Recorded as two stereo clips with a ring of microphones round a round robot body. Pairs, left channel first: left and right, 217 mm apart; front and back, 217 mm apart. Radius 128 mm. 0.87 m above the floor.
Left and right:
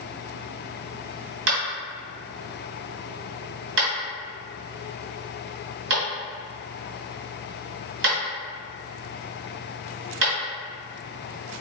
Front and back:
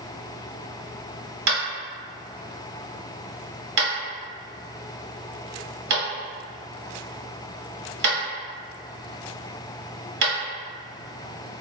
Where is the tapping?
130° right, 1.8 m.